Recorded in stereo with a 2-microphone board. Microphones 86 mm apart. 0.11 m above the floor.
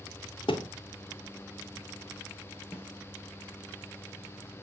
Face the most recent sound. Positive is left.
turn(degrees=30)  # may be behind; listen again after turning